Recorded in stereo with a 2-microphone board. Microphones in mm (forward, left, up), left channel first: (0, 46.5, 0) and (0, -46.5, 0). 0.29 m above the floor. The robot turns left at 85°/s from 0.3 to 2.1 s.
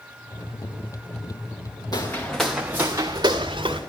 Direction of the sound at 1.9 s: 45° left (ahead or behind).